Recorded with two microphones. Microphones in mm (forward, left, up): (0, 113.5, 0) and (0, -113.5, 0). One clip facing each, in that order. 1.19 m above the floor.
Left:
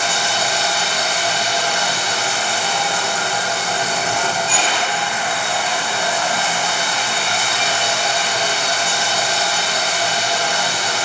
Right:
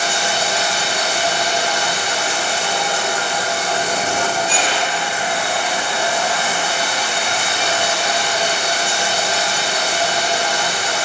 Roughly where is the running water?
Right.